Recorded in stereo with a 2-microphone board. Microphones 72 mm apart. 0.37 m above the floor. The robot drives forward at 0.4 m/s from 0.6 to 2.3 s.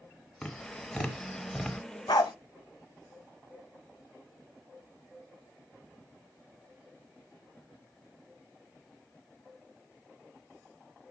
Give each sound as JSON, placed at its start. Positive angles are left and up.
{"t": 0.4, "sound": "tapping", "side_deg": 5, "distance_m": 1.1}
{"t": 2.1, "sound": "a dog barking", "side_deg": 75, "distance_m": 0.6}